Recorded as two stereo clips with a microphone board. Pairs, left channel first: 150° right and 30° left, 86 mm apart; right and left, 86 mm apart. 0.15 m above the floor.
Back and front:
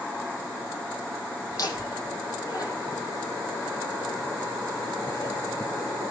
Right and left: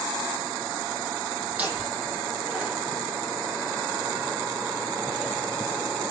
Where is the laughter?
165° left, 7.5 m.